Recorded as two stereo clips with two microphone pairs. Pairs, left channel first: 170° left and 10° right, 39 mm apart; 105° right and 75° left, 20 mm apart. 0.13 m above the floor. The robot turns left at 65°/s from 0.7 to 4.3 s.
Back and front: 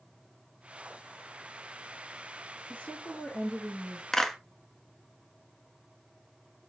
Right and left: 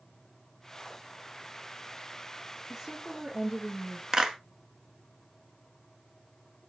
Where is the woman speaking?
170° left, 2.0 m; by 4.0 s 85° left, 2.0 m.